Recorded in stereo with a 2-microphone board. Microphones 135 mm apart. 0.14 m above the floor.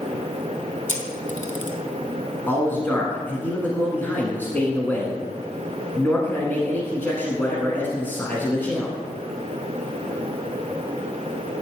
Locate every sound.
0.9 s a camera shutter: 70° left (ahead or behind), 1.1 m
2.5 s a man speaking: 15° left (ahead or behind), 1.4 m